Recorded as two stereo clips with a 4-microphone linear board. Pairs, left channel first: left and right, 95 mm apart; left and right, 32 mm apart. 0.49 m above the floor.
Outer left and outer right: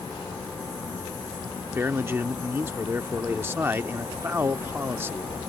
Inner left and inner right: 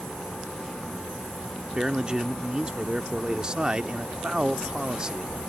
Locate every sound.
1.8 s a man speaking: 25° right (ahead or behind)